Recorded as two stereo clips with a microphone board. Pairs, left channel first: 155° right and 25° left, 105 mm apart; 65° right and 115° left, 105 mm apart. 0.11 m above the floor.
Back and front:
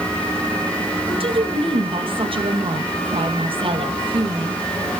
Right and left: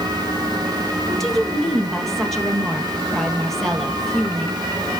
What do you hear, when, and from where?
1.1 s a woman speaking: 20° left, 3 m